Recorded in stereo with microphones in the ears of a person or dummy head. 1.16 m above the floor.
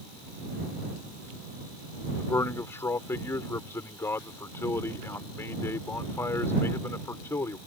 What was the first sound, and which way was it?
A man speaking, 15° left (ahead or behind).